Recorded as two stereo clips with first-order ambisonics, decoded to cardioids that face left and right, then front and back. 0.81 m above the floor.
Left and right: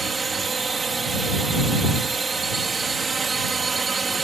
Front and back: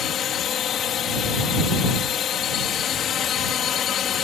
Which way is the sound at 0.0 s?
25° right.